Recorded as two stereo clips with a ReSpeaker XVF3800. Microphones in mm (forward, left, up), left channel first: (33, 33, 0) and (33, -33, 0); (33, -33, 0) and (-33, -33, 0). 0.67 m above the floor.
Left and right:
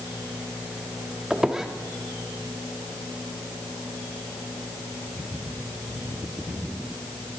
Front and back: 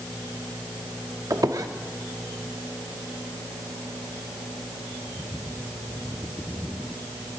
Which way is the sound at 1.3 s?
170° right.